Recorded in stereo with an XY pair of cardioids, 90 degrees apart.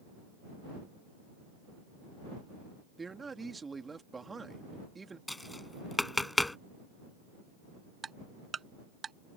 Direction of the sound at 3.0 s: 30° right.